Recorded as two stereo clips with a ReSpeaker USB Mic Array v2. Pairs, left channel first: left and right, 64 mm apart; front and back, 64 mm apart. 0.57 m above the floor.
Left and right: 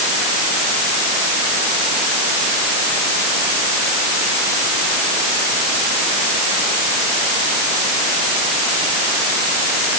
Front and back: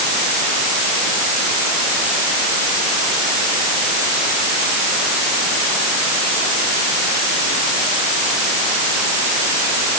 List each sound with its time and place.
Only background noise.